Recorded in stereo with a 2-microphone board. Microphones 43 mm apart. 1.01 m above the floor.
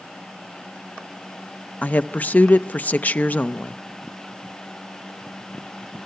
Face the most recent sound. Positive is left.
turn(degrees=35)  # may be behind; listen again after turning